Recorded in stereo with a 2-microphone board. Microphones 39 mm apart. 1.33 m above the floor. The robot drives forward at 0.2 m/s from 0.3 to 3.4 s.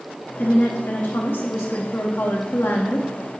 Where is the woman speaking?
55° left (ahead or behind), 0.9 m; by 3.1 s 70° left (ahead or behind), 0.8 m.